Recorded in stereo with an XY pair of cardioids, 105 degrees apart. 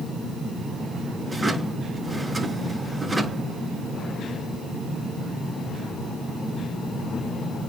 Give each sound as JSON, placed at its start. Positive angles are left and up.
{"t": 1.3, "sound": "a drawer", "azimuth_deg": -15, "distance_m": 5.0}